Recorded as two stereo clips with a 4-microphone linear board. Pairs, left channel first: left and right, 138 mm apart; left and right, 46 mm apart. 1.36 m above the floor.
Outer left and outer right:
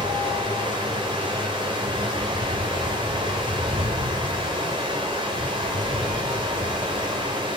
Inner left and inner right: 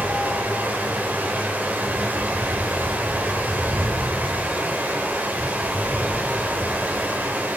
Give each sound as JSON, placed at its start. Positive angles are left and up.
{"t": 0.0, "sound": "running water", "side_deg": -35, "distance_m": 4.0}